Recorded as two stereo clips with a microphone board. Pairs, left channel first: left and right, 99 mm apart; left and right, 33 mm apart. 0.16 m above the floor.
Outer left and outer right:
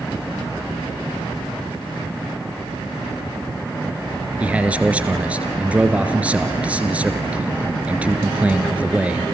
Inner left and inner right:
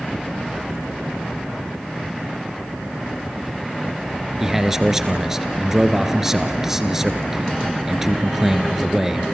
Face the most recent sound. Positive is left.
turn(degrees=-15)  # may be behind; listen again after turning